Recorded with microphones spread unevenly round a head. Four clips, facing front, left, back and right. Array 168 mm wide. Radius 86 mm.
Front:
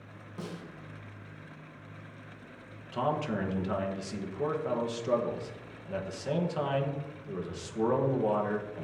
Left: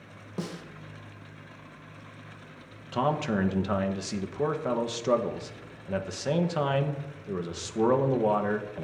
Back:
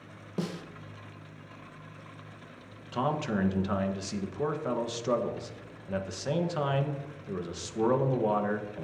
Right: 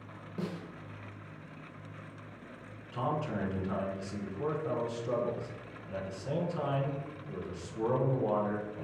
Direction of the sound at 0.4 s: 145° left.